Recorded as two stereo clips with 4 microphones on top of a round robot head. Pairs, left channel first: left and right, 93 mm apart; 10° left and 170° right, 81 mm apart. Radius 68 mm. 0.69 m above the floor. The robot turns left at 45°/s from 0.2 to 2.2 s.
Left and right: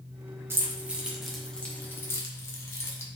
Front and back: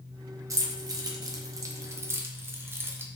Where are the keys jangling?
145° right, 0.6 m; by 3.1 s 135° left, 0.6 m.